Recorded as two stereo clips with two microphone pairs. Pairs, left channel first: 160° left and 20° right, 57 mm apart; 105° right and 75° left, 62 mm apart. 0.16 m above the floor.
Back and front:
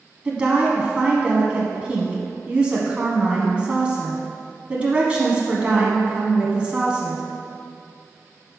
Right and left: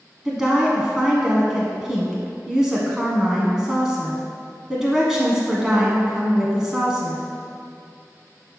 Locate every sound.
0.2 s a woman speaking: straight ahead, 1.0 m